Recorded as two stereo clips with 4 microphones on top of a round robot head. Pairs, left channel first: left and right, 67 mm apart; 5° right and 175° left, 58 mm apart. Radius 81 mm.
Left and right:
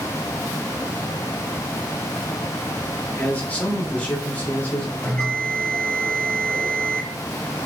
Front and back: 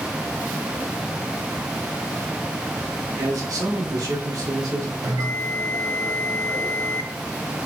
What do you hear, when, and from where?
3.2 s a man speaking: 160° left, 2.5 m
5.0 s a bell: 160° left, 2 m